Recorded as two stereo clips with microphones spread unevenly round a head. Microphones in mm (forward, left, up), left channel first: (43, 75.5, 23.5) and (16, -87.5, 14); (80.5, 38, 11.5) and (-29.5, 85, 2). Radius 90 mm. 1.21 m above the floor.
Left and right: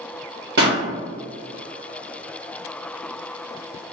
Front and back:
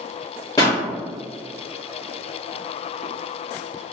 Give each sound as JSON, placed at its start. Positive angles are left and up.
{"t": 0.6, "sound": "a pop", "azimuth_deg": -95, "distance_m": 1.5}